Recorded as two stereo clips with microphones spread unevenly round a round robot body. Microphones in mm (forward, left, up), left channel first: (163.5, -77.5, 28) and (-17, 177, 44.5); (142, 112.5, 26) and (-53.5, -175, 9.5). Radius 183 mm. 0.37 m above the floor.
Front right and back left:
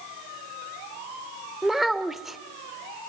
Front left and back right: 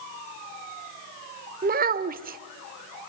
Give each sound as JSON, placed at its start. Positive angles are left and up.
{"t": 1.6, "sound": "a child speaking", "azimuth_deg": -140, "distance_m": 0.6}